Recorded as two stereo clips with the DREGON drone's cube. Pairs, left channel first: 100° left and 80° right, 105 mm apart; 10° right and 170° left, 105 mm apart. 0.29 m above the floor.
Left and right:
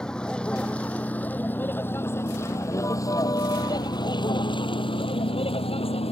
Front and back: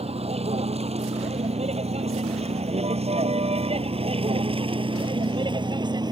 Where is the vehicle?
175° right; by 6.1 s 120° left.